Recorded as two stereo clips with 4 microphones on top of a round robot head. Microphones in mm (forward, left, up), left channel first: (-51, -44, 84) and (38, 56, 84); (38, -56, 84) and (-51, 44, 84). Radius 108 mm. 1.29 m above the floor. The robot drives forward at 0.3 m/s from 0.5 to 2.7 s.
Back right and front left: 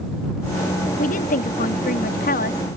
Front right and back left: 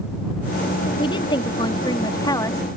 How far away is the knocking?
I don't hear knocking.